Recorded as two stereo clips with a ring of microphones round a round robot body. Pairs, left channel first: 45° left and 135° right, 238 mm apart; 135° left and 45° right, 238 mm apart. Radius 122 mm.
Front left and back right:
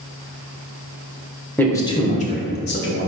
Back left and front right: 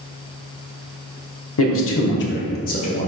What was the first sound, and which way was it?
A man speaking, 125° left.